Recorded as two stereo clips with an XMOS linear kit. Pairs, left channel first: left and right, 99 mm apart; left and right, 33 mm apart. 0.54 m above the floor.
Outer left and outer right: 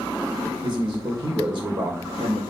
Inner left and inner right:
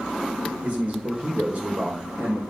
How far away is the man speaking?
About 2 m.